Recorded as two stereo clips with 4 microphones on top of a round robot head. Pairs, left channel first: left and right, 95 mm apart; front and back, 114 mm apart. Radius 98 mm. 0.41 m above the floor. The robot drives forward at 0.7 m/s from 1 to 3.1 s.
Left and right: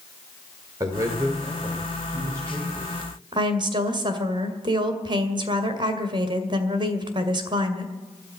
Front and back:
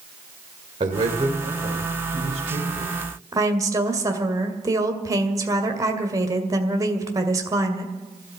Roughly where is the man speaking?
Behind right.